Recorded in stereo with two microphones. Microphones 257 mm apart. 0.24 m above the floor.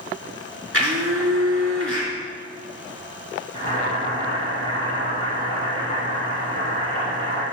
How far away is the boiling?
About 5 m.